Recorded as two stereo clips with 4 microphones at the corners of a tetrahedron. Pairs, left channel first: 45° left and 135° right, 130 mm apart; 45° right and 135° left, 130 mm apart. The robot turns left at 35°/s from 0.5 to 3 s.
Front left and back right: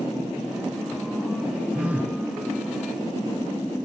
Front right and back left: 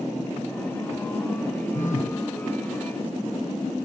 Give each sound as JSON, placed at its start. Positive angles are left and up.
{"t": 1.7, "sound": "a phone buzzing", "azimuth_deg": -50, "distance_m": 4.0}